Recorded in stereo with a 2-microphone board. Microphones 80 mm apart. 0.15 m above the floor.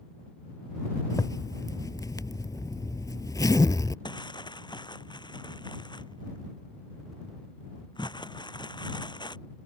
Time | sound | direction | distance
1.1 | a zipper | 50° left (ahead or behind) | ?
4.0 | crumpling | 80° left | ?